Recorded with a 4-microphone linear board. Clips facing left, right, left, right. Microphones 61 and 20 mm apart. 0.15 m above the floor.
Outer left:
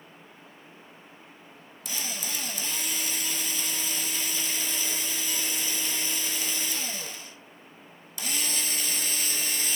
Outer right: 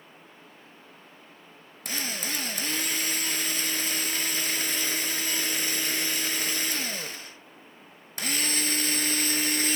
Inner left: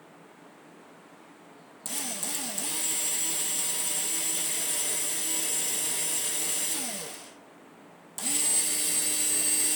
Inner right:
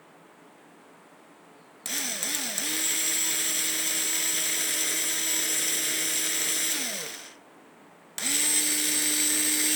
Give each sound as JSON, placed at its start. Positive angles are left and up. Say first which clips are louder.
{"t": 1.9, "sound": "a drill", "louder": "outer right 4 dB, inner right 4 dB", "side_deg": -55, "distance_m": 1.2}